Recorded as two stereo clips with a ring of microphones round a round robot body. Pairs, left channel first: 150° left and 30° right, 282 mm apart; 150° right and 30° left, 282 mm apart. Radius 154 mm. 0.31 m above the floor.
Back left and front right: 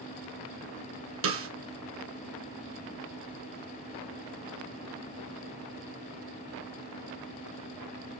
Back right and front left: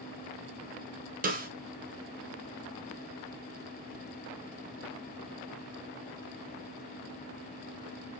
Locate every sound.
1.2 s a snare drum: 20° right, 2 m